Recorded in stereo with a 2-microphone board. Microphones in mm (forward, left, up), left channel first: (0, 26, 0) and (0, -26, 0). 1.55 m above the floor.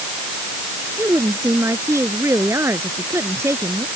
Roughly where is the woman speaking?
Right.